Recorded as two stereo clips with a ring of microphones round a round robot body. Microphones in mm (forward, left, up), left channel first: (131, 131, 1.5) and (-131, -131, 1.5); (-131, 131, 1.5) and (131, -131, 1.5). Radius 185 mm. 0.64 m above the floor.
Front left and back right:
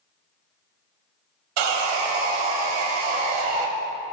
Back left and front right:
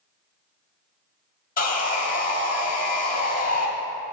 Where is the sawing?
155° right, 1.0 m.